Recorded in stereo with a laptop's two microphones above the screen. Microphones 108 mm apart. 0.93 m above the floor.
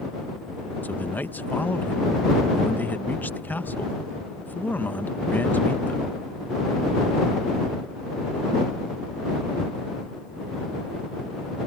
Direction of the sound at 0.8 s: 15° left (ahead or behind).